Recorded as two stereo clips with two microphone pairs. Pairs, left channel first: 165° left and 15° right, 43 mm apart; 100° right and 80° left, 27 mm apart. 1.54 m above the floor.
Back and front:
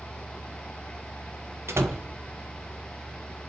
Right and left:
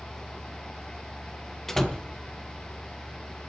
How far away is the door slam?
About 1.1 m.